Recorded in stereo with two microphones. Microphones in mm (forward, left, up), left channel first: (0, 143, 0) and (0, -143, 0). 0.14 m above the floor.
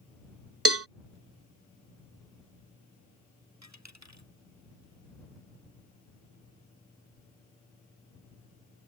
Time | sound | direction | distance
0.7 | a cowbell | 55° right (ahead or behind) | ?
3.6 | a dropped coin | 65° right (ahead or behind) | ?